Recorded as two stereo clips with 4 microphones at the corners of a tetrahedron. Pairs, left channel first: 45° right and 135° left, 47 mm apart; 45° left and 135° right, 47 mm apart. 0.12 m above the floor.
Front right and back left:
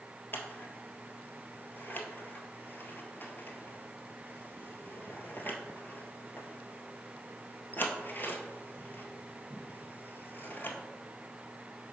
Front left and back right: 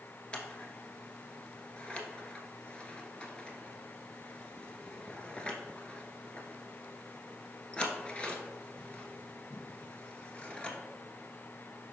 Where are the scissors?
15° right, 1.0 m.